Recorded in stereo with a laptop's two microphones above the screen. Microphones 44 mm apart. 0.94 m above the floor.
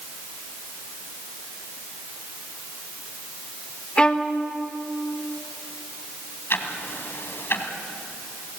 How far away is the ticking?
About 1.9 m.